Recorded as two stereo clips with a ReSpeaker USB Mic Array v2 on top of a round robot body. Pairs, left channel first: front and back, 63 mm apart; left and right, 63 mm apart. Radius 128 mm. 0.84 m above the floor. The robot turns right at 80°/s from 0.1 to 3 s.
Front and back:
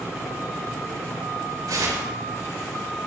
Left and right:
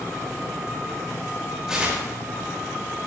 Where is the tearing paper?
175° right, 7 m; by 2.1 s 140° right, 7 m.